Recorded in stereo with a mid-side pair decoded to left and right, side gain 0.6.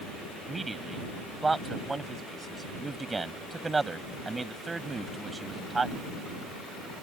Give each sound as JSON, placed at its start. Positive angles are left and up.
{"t": 0.5, "sound": "a man speaking", "azimuth_deg": -20}